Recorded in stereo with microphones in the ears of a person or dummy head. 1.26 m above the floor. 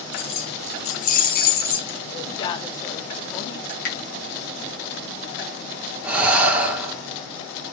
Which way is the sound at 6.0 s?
10° right (ahead or behind).